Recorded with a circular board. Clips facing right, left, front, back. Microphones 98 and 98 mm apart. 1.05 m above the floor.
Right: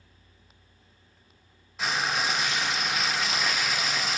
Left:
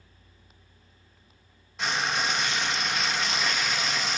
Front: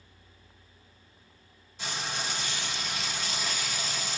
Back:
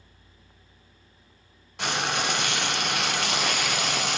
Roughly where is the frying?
Behind.